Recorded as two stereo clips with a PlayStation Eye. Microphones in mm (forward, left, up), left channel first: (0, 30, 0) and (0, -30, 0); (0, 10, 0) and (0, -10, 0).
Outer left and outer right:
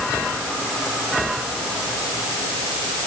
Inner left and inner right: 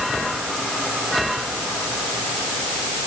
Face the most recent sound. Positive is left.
No sound to turn to.